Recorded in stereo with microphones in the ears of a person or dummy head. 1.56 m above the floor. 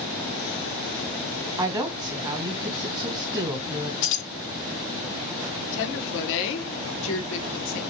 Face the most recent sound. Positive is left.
turn(degrees=65)  # may be behind; listen again after turning